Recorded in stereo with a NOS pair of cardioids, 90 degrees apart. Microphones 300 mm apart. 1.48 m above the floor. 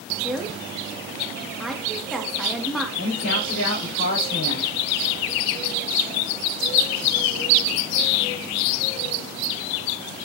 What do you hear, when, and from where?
0.2 s a woman speaking: straight ahead, 2.5 m
3.0 s a man speaking: 45° left, 6 m